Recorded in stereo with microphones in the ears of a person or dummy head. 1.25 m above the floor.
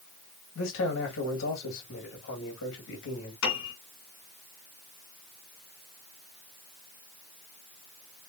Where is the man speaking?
75° left (ahead or behind), 1.9 m.